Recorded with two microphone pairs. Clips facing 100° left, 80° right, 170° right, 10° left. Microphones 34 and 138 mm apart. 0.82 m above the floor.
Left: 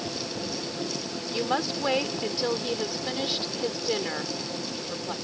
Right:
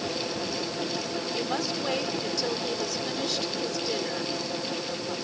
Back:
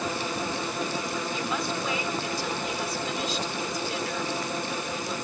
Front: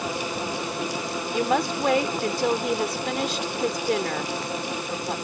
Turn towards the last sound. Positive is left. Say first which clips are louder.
# left 5 dB, front 11 dB
turn(degrees=30)